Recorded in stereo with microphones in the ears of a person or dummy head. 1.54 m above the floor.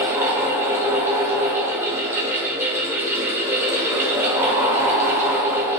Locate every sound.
0.0 s a fan: 10° right (ahead or behind), 0.7 m